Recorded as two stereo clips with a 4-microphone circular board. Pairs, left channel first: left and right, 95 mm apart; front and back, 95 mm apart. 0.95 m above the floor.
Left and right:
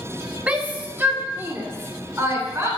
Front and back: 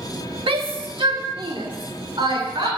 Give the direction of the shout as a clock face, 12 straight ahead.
6 o'clock.